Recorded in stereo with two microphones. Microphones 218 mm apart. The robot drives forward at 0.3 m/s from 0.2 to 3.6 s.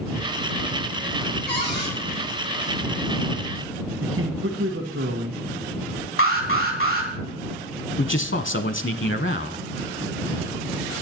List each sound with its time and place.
1.5 s a cupboard door: 50° left (ahead or behind), 4.5 m
4.0 s a man speaking: 80° right, 1.2 m
6.2 s an alarm: 85° left, 2 m
8.0 s a man speaking: 65° left (ahead or behind), 0.9 m